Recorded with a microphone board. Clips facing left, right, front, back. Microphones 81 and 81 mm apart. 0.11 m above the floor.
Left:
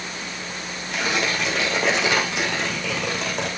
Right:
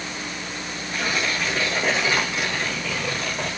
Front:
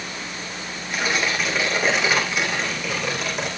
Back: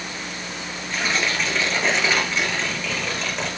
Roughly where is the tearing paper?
Left.